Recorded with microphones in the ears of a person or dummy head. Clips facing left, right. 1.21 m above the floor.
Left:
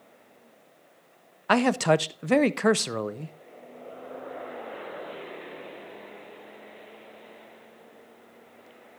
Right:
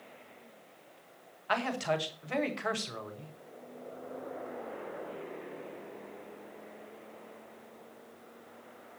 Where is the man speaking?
65° left (ahead or behind), 0.9 m.